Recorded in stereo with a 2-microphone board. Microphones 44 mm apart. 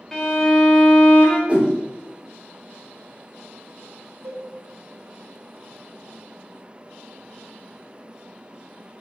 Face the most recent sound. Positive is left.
turn(degrees=-70)  # may be behind; listen again after turning